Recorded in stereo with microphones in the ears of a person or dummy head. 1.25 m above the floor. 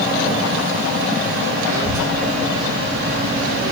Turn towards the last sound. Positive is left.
turn(degrees=-15)  # may be behind; listen again after turning